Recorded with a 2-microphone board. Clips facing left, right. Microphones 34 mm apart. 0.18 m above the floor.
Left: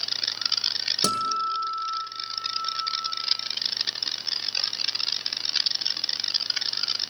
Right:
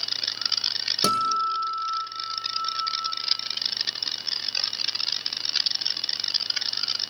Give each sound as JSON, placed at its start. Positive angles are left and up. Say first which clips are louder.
{"t": 1.0, "sound": "a guitar", "louder": "right 3 dB", "side_deg": -5, "distance_m": 2.5}